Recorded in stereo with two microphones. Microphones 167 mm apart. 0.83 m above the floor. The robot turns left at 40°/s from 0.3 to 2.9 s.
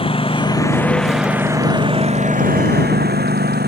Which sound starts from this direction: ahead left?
A lawn mower, at 0.0 s.